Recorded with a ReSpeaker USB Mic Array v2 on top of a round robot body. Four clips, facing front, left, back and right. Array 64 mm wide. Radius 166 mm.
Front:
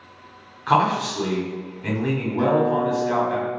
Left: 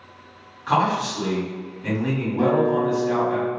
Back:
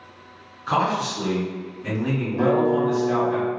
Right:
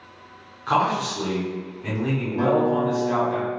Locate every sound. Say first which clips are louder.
0.7 s a man speaking: left 1 dB, front 3 dB; straight ahead, 1.4 m
2.4 s a guitar: left 1 dB, even; 130° right, 1.8 m